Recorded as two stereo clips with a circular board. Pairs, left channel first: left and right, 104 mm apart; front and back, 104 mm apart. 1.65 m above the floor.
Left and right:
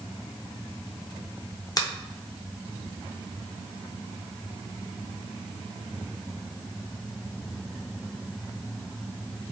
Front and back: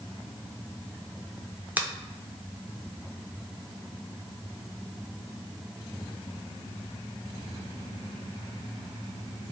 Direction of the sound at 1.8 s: 115° left.